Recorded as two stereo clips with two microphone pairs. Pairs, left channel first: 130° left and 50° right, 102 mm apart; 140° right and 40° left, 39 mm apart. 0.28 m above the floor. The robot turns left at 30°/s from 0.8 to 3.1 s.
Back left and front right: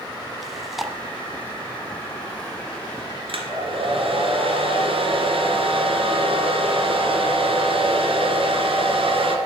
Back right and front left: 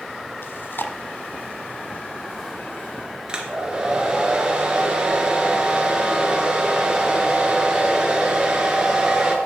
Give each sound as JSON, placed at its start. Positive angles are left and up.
{"t": 0.4, "sound": "chewing", "azimuth_deg": -135, "distance_m": 1.1}
{"t": 3.3, "sound": "a hair dryer", "azimuth_deg": -25, "distance_m": 2.5}